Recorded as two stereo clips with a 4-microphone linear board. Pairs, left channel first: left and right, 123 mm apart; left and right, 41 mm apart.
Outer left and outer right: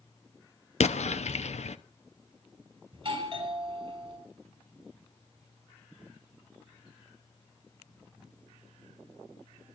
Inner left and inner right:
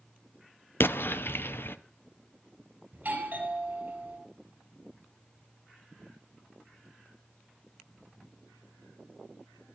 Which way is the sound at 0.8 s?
65° left (ahead or behind).